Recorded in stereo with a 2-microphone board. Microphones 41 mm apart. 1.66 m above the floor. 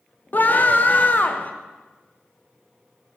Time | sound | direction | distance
0.3 | a scream | 45° left (ahead or behind) | 0.7 m